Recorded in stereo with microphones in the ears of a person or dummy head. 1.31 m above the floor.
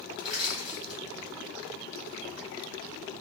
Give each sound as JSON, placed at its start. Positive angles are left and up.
{"t": 0.2, "sound": "crushing", "side_deg": -5, "distance_m": 1.6}